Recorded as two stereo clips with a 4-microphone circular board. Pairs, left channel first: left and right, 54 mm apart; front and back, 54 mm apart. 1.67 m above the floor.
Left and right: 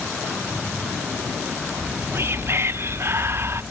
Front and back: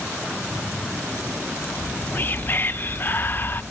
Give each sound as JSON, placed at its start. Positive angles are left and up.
{"t": 1.7, "sound": "whispering", "azimuth_deg": -50, "distance_m": 0.7}